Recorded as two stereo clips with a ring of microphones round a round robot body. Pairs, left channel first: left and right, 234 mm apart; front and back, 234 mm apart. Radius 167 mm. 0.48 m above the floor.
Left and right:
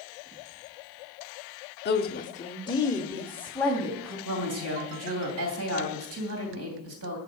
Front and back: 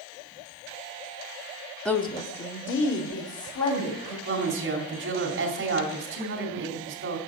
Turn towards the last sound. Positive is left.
turn(degrees=-125)